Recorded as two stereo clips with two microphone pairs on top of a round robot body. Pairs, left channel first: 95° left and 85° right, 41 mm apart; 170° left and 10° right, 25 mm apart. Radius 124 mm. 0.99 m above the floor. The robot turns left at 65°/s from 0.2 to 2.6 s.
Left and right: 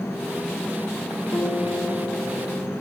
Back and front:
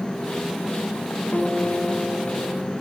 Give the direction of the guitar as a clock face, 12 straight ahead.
8 o'clock.